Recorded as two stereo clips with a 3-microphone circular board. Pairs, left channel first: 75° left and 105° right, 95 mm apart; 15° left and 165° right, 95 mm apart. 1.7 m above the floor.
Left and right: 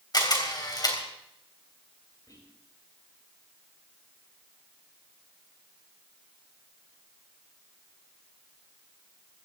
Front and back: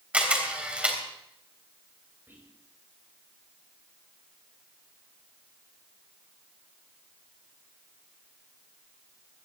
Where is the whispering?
125° left, 7 m.